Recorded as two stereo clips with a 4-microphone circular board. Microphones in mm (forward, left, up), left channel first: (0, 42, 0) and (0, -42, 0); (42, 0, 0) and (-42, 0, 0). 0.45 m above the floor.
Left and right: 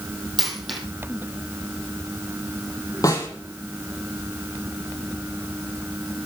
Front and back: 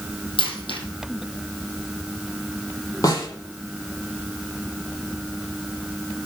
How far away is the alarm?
No alarm in this recording.